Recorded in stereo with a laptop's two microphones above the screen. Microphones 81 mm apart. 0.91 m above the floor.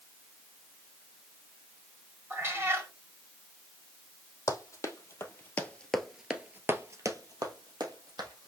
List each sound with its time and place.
2.3 s a cat meowing: 30° right (ahead or behind), 1.9 m
4.5 s running footsteps: 40° left (ahead or behind), 1.8 m; by 8.5 s 60° right (ahead or behind), 2 m